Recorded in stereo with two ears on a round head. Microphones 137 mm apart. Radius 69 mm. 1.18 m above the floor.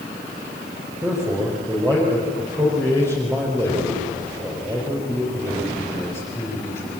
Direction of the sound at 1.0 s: 20° right (ahead or behind).